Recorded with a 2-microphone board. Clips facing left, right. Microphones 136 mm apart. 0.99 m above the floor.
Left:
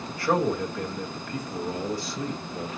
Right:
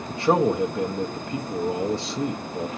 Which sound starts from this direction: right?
A man speaking, at 0.1 s.